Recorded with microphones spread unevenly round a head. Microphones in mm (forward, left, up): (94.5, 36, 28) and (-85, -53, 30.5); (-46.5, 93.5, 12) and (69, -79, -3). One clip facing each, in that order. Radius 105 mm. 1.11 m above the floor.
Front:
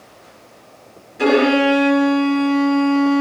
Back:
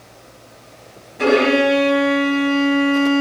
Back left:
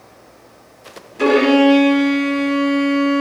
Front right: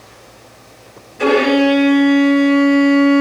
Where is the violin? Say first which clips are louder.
Front 1 dB, back left 1 dB; 110° left, 1.1 m.